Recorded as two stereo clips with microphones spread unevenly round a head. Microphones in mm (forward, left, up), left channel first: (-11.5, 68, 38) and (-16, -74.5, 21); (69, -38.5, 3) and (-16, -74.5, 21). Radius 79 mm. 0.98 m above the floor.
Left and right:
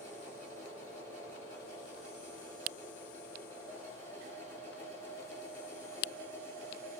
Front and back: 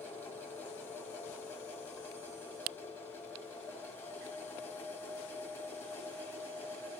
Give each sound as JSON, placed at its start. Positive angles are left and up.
{"t": 0.0, "sound": "a machine running", "azimuth_deg": -45, "distance_m": 5.0}